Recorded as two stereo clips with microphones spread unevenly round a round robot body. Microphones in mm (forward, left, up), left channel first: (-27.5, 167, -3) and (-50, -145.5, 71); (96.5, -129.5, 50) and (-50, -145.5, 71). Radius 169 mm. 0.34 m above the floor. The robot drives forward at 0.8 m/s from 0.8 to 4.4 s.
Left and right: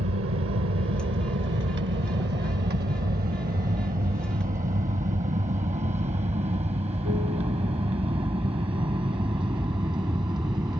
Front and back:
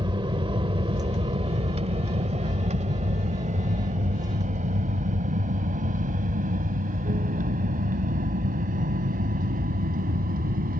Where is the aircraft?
130° right; by 10.8 s 175° right.